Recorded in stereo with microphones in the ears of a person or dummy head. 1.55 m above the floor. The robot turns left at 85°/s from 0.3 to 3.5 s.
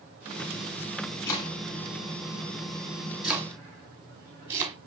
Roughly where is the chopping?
Centre.